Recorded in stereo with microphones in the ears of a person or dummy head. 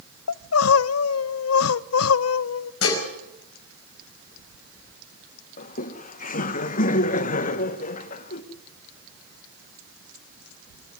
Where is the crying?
80° left, 0.5 m.